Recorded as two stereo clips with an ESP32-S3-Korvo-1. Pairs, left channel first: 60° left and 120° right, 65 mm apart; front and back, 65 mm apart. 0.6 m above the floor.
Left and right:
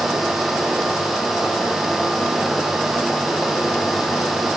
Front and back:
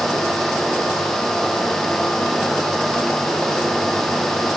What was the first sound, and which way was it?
Only background noise.